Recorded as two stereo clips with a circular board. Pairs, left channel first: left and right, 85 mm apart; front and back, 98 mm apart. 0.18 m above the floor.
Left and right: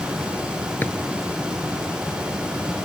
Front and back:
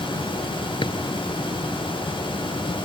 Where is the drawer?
25° left.